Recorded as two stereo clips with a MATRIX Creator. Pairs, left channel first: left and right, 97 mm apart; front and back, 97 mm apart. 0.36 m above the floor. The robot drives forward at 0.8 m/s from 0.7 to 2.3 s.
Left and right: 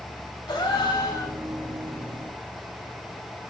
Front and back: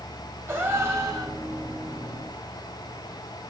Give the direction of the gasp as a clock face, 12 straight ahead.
8 o'clock.